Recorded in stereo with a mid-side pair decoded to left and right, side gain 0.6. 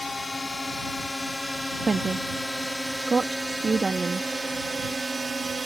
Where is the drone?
15° left; by 5.7 s 25° right.